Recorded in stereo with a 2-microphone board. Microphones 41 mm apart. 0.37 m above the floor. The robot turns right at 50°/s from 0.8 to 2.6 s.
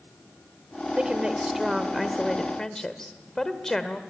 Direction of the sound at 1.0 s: 55° right.